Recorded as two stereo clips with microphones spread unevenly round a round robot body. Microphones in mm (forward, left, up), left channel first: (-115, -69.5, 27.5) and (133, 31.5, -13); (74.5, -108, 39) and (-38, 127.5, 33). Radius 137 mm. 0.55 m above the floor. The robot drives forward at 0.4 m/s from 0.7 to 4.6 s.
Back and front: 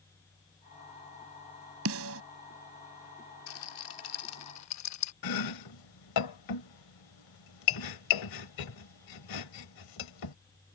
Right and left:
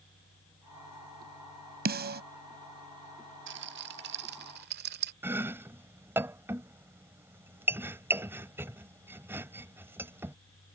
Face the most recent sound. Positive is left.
turn(degrees=-165)